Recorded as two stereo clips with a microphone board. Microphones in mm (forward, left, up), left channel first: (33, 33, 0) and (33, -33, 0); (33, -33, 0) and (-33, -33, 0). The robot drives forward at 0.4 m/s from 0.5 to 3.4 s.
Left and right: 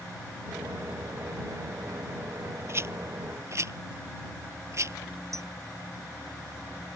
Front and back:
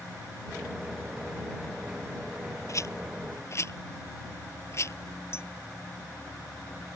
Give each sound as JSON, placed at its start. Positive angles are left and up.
{"t": 2.7, "sound": "a rattle", "azimuth_deg": -40}
{"t": 5.3, "sound": "a clink", "azimuth_deg": -50}